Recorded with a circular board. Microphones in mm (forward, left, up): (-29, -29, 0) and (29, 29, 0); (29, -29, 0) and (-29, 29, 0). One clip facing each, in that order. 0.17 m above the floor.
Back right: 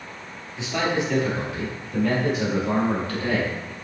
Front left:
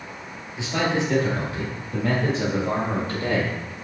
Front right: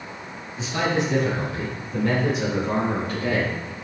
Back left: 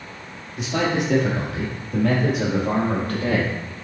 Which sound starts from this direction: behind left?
A man speaking, at 0.6 s.